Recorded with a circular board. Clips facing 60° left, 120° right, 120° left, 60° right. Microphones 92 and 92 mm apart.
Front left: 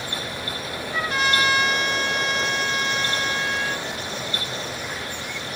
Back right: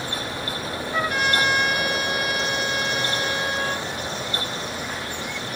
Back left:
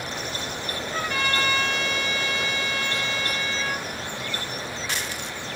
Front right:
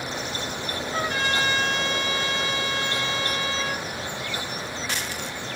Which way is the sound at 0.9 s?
105° right.